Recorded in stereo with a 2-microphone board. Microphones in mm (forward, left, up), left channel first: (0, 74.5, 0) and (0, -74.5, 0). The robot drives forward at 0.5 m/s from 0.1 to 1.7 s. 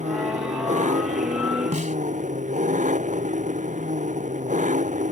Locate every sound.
0.0 s an engine running: 55° right (ahead or behind); by 5.1 s 60° right (ahead or behind)
1.7 s a snare drum: 55° right (ahead or behind)